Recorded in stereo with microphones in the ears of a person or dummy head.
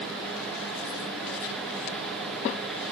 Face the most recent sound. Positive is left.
No sound to turn to.